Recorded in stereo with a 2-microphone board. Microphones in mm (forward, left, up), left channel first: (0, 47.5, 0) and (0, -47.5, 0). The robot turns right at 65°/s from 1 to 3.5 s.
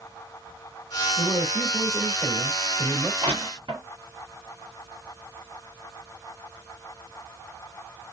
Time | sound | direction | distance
1.2 | a man speaking | 100° left | 2.5 m
3.2 | crushing | 70° right (ahead or behind) | 2 m